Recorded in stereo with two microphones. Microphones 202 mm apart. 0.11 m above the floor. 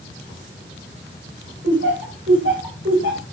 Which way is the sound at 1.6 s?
70° right (ahead or behind).